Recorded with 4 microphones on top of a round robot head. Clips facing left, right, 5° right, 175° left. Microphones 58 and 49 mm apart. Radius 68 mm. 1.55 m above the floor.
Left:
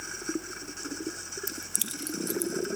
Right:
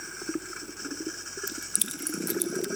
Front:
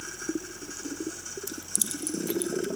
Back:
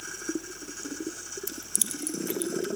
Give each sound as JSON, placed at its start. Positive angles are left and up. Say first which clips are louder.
{"t": 1.5, "sound": "keys jangling", "louder": "right 1 dB, front 1 dB", "azimuth_deg": 135, "distance_m": 0.6}